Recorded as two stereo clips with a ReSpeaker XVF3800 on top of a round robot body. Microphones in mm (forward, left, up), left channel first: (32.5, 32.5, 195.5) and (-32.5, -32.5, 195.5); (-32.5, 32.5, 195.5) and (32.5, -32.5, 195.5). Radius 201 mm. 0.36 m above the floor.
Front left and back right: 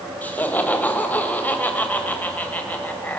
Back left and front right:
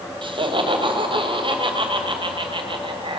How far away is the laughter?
About 3 m.